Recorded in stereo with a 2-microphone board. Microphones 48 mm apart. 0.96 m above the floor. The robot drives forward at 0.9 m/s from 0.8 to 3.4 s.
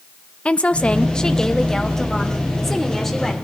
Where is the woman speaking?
25° left (ahead or behind), 0.6 m; by 3.3 s 5° left (ahead or behind), 2.5 m.